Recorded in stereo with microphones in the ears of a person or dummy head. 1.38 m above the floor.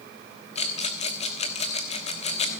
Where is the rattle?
40° left (ahead or behind), 1.3 m.